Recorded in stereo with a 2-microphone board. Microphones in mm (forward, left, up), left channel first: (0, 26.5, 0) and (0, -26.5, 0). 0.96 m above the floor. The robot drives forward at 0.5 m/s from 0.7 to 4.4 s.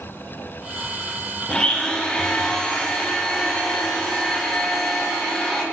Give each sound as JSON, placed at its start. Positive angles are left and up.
{"t": 1.5, "sound": "a blender", "side_deg": 15, "distance_m": 1.5}